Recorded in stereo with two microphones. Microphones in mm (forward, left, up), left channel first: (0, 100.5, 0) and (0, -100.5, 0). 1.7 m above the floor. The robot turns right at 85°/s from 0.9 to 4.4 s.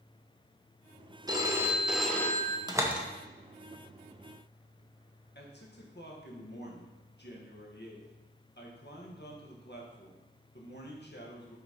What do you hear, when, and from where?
1.3 s a phone ringing: 20° right (ahead or behind), 0.7 m; by 2.6 s 15° left (ahead or behind), 0.7 m
2.7 s a door slam: 20° right (ahead or behind), 0.7 m; by 3.1 s centre (ahead or behind), 0.7 m
5.3 s a man speaking: 60° left (ahead or behind), 1.2 m